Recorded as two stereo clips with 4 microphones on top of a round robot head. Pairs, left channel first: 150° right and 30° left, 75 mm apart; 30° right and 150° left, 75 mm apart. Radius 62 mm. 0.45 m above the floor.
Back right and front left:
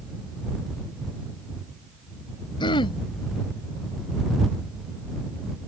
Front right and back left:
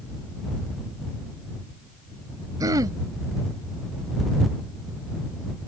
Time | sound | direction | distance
2.6 | throat clearing | 170° right | ?